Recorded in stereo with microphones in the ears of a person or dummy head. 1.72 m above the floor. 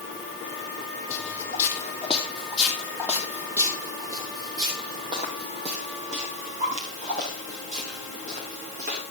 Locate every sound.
1.1 s footsteps: 25° left (ahead or behind), 2.5 m; by 9.0 s 45° right (ahead or behind), 6 m